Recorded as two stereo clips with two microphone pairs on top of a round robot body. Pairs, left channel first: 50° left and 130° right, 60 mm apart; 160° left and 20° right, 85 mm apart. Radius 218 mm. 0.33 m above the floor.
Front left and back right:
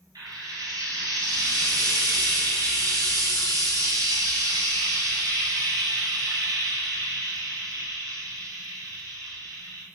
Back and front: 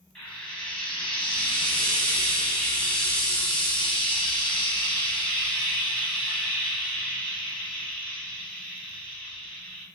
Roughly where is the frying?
Behind right.